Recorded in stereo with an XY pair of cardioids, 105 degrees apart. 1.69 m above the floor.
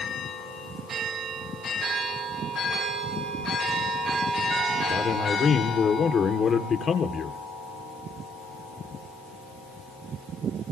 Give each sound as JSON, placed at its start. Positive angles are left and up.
{"t": 4.9, "sound": "a man speaking", "azimuth_deg": 50, "distance_m": 5.0}